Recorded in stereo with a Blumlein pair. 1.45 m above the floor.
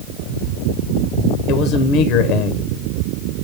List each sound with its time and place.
1.5 s a man speaking: 40° left, 0.8 m